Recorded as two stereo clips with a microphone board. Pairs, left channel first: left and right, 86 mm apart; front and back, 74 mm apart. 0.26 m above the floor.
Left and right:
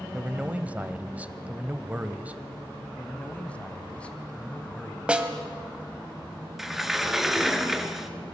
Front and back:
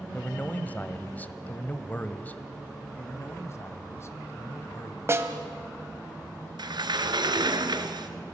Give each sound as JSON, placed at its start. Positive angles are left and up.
{"t": 0.1, "sound": "a man speaking", "azimuth_deg": -35, "distance_m": 1.1}
{"t": 3.0, "sound": "a man speaking", "azimuth_deg": 20, "distance_m": 1.9}
{"t": 5.1, "sound": "a snare drum", "azimuth_deg": -160, "distance_m": 1.7}
{"t": 6.6, "sound": "a sliding door", "azimuth_deg": -175, "distance_m": 1.6}